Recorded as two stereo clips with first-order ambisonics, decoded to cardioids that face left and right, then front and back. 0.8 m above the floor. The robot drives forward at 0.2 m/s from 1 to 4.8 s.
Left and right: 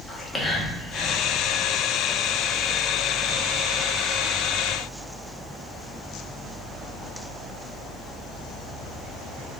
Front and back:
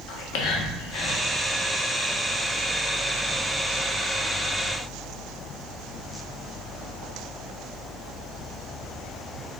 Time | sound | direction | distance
0.1 | whispering | 10° left | 0.8 m